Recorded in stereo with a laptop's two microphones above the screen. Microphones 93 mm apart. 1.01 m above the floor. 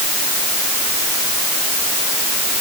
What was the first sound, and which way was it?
Only background noise.